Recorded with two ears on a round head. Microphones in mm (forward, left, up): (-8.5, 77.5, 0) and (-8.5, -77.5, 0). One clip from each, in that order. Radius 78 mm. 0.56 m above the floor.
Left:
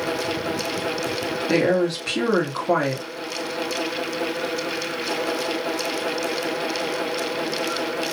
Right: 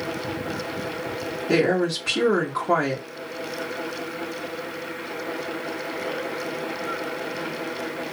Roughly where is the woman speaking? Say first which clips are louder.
Left 1 dB; centre.